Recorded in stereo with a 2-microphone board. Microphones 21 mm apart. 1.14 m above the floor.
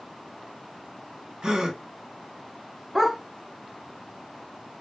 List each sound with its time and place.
1.4 s a gasp: 40° right (ahead or behind), 1.1 m
3.0 s a dog barking: 15° right (ahead or behind), 1.0 m